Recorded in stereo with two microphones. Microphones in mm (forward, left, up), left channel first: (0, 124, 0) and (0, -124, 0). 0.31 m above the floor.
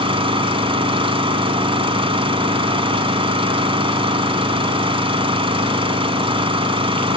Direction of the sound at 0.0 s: 20° right (ahead or behind).